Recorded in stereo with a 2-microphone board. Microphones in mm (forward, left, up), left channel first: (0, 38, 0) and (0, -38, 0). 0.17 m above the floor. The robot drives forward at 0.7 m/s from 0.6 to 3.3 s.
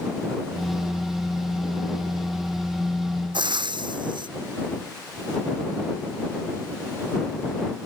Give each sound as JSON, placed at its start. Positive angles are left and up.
{"t": 3.3, "sound": "frying", "side_deg": -85}